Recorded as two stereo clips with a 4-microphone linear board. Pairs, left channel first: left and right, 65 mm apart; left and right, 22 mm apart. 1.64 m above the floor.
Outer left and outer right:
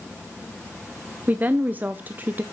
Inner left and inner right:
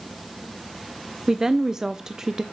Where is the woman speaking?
30° right (ahead or behind), 0.5 m.